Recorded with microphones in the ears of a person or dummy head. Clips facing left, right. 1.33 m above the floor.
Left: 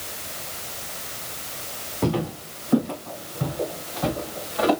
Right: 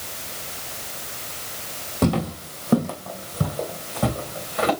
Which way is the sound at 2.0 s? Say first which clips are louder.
Right 2 dB; 50° right (ahead or behind).